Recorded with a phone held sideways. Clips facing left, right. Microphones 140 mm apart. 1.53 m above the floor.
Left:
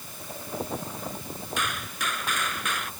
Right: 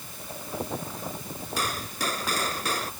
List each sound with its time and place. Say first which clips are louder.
1.6 s a gunshot: right 3 dB; 35° right (ahead or behind)